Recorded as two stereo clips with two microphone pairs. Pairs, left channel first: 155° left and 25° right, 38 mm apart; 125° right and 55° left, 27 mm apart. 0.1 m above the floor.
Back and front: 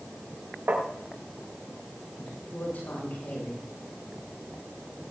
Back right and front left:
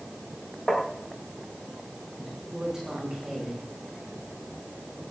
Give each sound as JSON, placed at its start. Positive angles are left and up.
{"t": 0.7, "sound": "tapping", "azimuth_deg": -55, "distance_m": 7.0}
{"t": 2.2, "sound": "a woman speaking", "azimuth_deg": 130, "distance_m": 9.0}